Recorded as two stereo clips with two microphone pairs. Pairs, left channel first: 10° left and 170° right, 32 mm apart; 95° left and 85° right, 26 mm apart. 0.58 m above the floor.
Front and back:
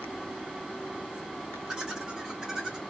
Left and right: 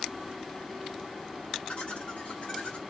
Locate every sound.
1.7 s laughter: 135° left, 1.6 m